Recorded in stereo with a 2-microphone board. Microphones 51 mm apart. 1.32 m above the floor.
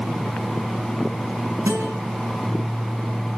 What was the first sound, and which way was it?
A guitar, 80° right.